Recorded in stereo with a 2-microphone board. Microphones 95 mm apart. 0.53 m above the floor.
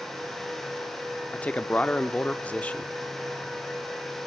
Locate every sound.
1.3 s a man speaking: 15° left (ahead or behind), 0.8 m